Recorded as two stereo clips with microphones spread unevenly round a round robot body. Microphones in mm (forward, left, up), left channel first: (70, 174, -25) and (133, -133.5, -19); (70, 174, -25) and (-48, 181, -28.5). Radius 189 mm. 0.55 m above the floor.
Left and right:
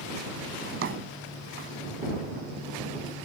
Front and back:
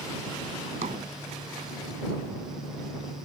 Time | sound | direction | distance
0.6 | a drawer | 140° right | ?